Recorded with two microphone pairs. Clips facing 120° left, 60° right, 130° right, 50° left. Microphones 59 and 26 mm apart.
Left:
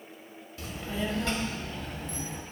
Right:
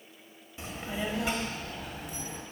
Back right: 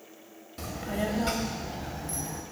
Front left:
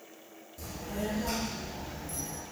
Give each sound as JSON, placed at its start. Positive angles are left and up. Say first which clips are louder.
{"t": 0.6, "sound": "a child speaking", "louder": "left 1 dB, back right 5 dB", "azimuth_deg": -120, "distance_m": 1.5}